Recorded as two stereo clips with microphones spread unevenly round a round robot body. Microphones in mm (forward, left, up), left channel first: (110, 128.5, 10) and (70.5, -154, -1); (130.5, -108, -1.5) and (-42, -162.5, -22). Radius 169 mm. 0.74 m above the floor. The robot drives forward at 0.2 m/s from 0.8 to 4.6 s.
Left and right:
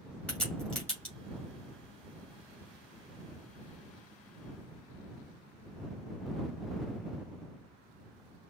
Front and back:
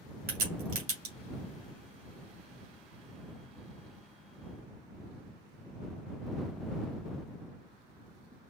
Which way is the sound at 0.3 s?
170° left.